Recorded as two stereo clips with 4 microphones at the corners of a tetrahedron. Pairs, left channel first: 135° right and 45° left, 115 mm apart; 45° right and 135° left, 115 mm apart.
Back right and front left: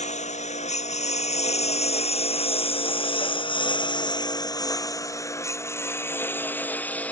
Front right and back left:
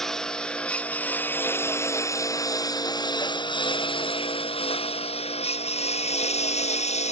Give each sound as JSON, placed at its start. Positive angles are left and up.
{"t": 0.0, "sound": "a lawn mower", "azimuth_deg": -130}